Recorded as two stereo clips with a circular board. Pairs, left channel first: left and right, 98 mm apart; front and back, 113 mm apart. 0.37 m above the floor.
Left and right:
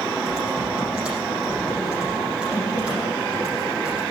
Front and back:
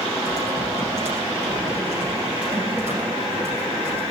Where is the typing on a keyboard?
165° right, 7 m.